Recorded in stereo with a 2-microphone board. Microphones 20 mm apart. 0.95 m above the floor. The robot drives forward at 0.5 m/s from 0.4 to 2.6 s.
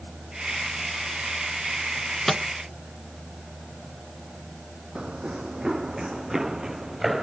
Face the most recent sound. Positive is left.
turn(degrees=-10)  # may be behind; listen again after turning